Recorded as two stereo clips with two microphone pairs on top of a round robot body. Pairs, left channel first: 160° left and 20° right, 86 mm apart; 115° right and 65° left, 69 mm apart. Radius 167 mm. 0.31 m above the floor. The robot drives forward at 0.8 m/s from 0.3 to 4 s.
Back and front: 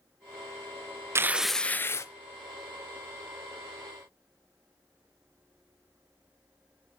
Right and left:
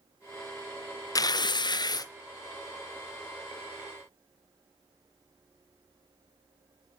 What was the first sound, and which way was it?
Tearing paper, 80° right.